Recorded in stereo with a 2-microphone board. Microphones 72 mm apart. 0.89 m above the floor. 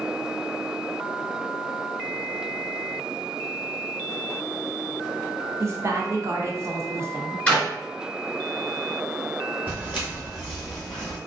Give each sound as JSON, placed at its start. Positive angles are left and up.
{"t": 5.6, "sound": "a woman speaking", "side_deg": -40, "distance_m": 0.6}
{"t": 7.5, "sound": "a clap", "side_deg": 20, "distance_m": 1.0}
{"t": 9.7, "sound": "footsteps", "side_deg": -25, "distance_m": 1.5}